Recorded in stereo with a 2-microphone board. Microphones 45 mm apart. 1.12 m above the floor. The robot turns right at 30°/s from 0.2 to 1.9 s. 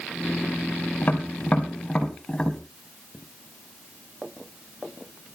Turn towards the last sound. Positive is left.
turn(degrees=15)  # may be behind; listen again after turning